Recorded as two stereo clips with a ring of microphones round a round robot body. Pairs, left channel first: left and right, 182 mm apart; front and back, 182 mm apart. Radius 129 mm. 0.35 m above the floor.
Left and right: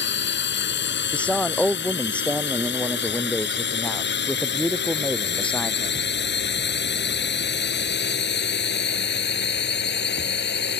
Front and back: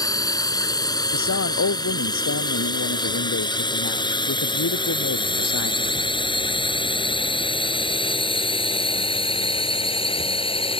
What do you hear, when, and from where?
0.0 s a drone: 70° left; by 10.8 s 60° left
1.1 s a man speaking: 5° left